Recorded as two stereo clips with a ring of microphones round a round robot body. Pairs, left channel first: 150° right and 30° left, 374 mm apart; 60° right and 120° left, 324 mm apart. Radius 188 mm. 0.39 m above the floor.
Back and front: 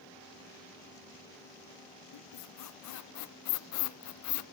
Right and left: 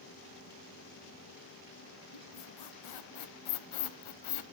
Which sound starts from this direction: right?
A squeak, at 2.1 s.